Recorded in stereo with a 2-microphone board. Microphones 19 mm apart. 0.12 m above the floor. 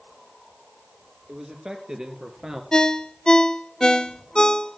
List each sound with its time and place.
1.3 s a man speaking: 45° right (ahead or behind), 3 m
2.7 s a ringtone: 45° left (ahead or behind), 0.7 m